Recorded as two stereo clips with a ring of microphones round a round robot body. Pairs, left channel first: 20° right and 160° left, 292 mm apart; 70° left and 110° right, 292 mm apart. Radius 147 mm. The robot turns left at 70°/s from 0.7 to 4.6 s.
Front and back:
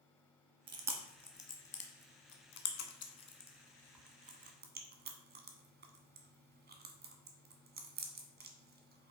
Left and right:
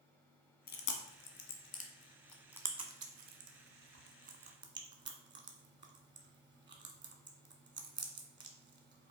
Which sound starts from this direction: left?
Chewing, at 0.7 s.